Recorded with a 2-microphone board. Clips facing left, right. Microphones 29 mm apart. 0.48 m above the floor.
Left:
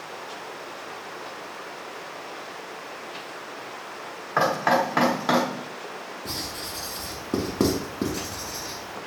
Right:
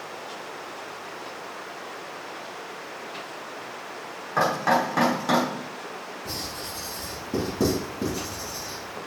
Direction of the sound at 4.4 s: 25° left (ahead or behind).